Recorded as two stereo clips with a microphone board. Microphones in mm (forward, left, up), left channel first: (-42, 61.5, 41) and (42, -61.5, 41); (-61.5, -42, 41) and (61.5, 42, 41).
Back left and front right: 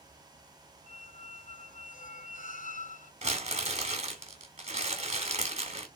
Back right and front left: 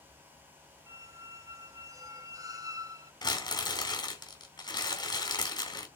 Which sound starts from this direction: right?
Crumpling, at 3.2 s.